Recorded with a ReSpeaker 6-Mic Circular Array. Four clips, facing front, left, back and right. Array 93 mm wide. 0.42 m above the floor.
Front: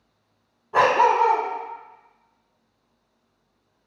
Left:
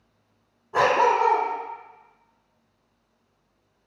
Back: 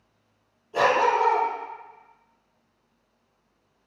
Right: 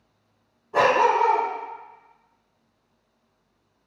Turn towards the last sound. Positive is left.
turn(degrees=10)